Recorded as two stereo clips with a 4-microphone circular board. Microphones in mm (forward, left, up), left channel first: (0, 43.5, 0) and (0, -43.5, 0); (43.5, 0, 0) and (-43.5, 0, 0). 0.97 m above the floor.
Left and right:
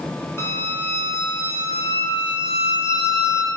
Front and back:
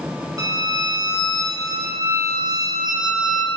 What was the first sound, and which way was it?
A violin, 145° left.